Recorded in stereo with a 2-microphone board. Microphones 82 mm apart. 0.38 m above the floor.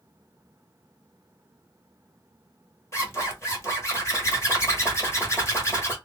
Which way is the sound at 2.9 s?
35° left (ahead or behind).